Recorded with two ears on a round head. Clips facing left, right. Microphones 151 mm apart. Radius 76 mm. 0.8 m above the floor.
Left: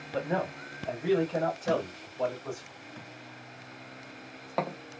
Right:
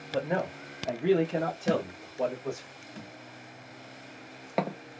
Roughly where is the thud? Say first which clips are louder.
Right 1 dB; right.